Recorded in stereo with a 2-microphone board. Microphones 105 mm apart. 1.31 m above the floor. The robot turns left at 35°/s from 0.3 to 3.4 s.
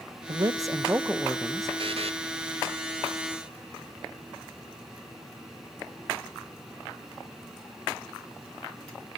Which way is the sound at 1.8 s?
60° right (ahead or behind).